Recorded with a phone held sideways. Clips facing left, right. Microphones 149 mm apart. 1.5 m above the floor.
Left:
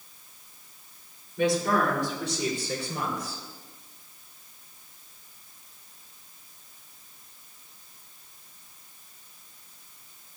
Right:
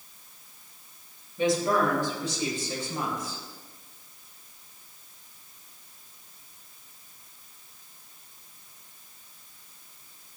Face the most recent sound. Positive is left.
turn(degrees=80)